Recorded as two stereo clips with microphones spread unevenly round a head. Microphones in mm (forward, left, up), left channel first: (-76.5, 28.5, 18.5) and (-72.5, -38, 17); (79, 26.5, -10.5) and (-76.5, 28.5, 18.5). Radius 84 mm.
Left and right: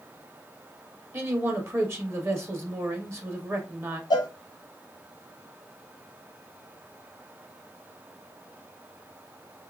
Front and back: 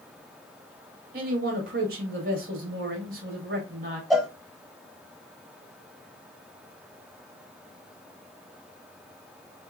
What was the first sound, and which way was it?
A man speaking, 140° right.